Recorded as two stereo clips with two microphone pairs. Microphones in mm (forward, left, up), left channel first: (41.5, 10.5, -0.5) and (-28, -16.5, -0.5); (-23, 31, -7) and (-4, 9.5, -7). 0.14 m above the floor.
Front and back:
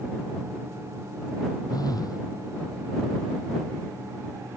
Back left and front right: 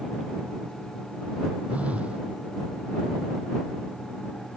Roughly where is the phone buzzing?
Ahead.